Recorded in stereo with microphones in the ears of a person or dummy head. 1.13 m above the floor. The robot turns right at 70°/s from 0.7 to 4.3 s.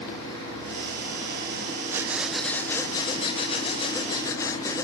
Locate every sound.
1.9 s breathing: 10° right (ahead or behind), 0.6 m; by 4.8 s 15° left (ahead or behind), 0.6 m